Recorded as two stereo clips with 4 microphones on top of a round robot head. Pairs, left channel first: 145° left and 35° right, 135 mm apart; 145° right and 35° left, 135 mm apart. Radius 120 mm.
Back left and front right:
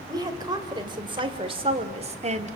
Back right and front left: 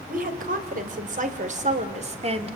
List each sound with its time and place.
0.1 s a woman speaking: 30° left, 4 m; by 2.6 s 10° right, 2.5 m